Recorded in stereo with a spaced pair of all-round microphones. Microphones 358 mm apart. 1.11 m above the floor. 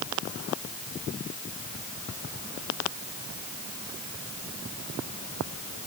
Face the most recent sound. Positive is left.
No sound to turn to.